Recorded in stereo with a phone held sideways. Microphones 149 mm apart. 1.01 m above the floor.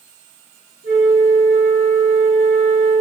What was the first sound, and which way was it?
A flute, 40° left (ahead or behind).